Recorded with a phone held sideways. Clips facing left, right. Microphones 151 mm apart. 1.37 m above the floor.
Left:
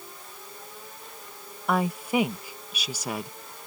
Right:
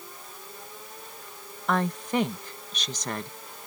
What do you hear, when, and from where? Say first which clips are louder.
1.7 s a woman speaking: left 1 dB; 10° left (ahead or behind)